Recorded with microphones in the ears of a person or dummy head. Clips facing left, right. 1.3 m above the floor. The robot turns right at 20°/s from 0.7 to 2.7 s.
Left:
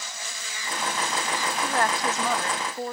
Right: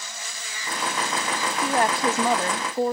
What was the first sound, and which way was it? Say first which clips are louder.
A woman speaking: right 4 dB; 15° right (ahead or behind).